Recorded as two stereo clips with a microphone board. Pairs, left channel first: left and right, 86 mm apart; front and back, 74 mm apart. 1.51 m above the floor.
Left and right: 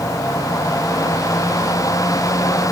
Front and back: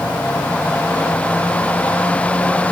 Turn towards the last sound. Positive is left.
No sound to turn to.